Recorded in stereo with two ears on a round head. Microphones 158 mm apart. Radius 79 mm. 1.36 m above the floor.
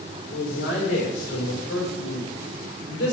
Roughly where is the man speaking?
Left.